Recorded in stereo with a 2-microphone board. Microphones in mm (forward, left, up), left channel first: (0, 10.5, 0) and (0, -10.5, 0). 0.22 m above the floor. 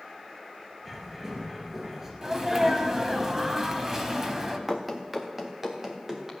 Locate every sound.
0.8 s a bird: 20° right (ahead or behind), 2.5 m
2.2 s a sneeze: 20° right (ahead or behind), 1.3 m
4.7 s running footsteps: centre (ahead or behind), 1.2 m; by 6.3 s 20° right (ahead or behind), 2.5 m